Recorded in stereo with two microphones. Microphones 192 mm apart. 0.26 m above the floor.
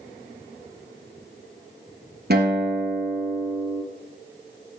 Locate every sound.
2.3 s a guitar: 60° right (ahead or behind), 1.6 m